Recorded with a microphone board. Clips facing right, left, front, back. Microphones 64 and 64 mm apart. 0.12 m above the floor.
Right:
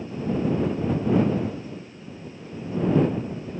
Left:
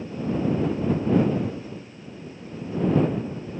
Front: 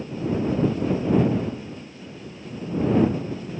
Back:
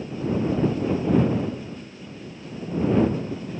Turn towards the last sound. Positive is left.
No sound to turn to.